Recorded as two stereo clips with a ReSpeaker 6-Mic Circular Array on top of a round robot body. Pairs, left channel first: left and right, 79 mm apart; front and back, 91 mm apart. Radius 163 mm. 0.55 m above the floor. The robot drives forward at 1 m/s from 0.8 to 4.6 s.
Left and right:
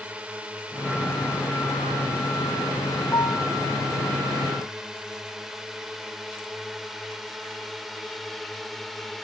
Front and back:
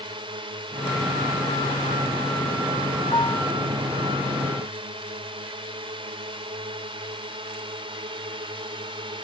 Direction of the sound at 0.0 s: 165° right.